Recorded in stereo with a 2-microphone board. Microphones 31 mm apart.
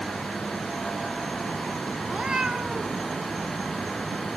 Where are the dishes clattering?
No dishes clattering in this recording.